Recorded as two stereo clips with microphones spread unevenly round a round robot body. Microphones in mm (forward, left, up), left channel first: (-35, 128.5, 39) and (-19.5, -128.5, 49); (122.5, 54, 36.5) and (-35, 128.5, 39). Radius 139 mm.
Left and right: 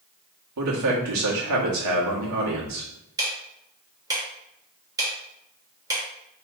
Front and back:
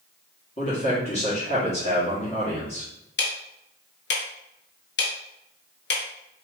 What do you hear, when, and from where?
0.6 s a man speaking: 85° right, 1.4 m
3.2 s ticking: 10° right, 0.9 m